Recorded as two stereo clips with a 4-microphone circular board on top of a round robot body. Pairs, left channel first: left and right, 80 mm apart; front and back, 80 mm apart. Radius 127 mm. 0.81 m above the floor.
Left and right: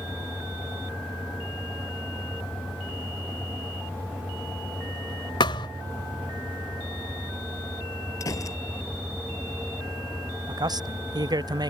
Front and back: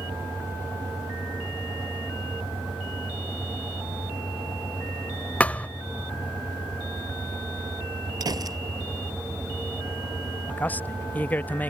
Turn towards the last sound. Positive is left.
turn(degrees=-70)